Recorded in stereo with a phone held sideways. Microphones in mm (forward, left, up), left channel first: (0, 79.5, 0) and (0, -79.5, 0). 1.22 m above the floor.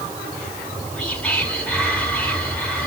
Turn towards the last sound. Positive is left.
turn(degrees=5)  # may be behind; listen again after turning